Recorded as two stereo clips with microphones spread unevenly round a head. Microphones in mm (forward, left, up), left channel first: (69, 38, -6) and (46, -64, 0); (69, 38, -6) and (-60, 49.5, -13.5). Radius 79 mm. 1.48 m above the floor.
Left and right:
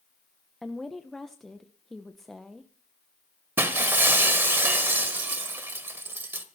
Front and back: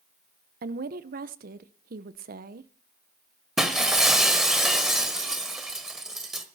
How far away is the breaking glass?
About 1.3 m.